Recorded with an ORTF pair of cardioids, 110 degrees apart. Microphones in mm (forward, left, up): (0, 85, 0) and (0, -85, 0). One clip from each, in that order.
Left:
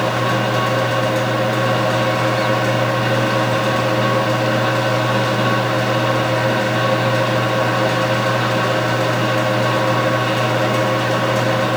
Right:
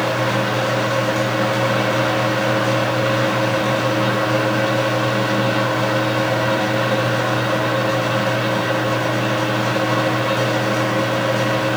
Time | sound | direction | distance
0.0 | a fan | 35° left | 2 m